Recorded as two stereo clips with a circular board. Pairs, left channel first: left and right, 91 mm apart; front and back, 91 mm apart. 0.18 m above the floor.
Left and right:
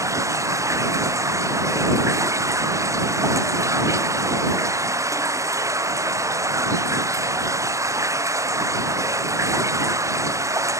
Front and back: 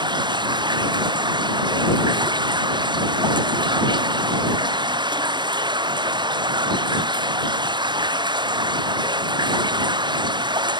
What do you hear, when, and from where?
0.0 s running water: 145° right